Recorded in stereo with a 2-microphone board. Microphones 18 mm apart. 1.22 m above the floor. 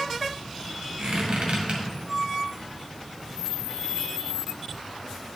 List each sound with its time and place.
1.0 s a squeak: 70° right (ahead or behind), 1.6 m